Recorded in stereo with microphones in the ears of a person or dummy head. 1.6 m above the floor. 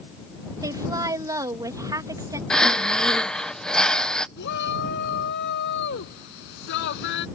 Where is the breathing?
5° left (ahead or behind).